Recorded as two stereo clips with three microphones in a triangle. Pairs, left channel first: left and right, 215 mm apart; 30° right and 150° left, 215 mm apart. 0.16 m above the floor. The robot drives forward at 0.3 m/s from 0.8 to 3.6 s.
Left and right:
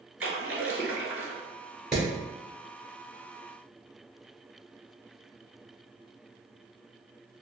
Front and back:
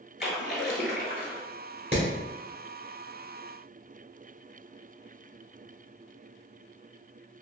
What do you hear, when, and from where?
0.2 s a splash: 70° right, 0.7 m; by 1.4 s 85° right, 0.6 m
1.9 s hammering: 175° right, 1.4 m